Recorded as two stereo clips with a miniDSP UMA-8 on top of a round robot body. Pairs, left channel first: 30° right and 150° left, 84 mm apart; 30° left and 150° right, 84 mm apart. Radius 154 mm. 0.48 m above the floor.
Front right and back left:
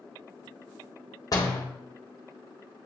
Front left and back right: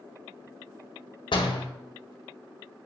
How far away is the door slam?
About 1.8 m.